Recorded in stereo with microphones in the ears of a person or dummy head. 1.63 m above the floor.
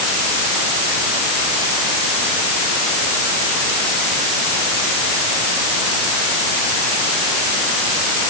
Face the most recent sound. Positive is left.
No sound to turn to.